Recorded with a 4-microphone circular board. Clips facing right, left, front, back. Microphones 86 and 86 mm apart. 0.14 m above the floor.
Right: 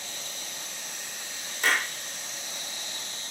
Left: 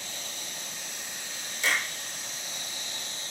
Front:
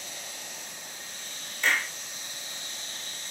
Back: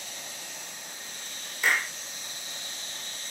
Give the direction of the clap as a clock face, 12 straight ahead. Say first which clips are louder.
Right 3 dB, back 1 dB; 3 o'clock.